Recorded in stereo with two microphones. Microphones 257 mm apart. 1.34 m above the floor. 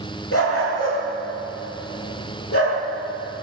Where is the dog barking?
60° left (ahead or behind), 9.5 m.